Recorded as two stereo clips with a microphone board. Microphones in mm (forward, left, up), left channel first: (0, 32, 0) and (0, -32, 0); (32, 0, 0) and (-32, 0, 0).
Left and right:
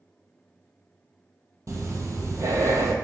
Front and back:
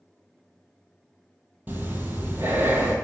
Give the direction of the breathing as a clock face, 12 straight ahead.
4 o'clock.